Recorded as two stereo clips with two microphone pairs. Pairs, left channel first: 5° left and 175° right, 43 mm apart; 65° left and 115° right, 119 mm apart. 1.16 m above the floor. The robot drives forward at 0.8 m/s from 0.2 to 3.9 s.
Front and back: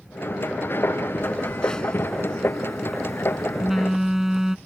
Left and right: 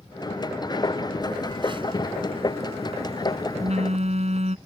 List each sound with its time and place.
1.2 s a phone buzzing: 65° right; by 4.6 s 100° right